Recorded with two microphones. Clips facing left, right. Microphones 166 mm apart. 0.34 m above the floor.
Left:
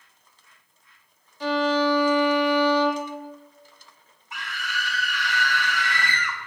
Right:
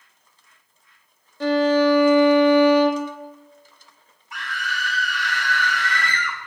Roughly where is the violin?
Right.